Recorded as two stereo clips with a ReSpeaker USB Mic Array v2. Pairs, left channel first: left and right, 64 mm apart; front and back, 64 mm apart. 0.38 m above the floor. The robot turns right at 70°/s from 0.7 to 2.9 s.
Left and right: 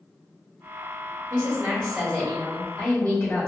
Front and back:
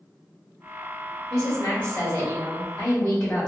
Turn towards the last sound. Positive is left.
turn(degrees=55)